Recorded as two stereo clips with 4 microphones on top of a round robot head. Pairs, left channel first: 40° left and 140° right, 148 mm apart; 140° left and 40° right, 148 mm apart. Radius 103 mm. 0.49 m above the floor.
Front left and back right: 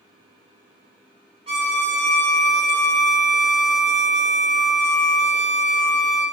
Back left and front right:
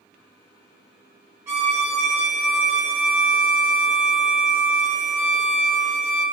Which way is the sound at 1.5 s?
105° right.